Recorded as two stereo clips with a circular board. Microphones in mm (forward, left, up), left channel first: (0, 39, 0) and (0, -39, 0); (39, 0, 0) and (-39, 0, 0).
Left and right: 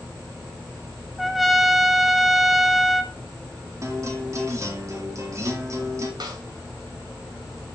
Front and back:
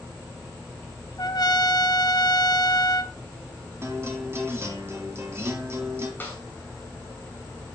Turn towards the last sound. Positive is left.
turn(degrees=-65)